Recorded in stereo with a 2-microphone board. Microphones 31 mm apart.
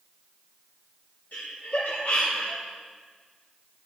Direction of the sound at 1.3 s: 75° left (ahead or behind).